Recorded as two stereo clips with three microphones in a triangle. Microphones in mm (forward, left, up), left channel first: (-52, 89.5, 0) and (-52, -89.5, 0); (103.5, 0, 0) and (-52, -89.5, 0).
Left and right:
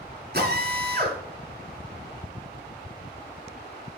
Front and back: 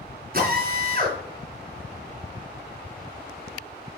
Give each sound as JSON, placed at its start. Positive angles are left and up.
{"t": 0.3, "sound": "a drill", "azimuth_deg": -115, "distance_m": 3.0}